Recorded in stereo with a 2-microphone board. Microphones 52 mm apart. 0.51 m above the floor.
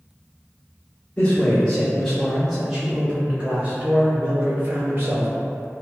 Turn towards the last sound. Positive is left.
turn(degrees=-50)  # may be behind; listen again after turning